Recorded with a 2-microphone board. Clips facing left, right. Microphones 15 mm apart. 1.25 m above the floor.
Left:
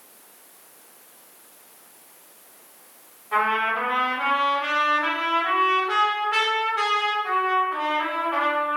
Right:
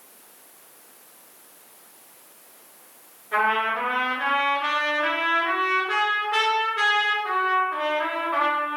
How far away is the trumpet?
About 1.9 m.